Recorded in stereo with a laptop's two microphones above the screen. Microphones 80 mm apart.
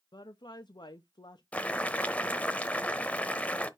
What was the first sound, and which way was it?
A woman speaking, 70° left (ahead or behind).